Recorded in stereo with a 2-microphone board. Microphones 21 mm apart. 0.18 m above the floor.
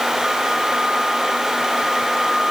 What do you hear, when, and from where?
Only background noise.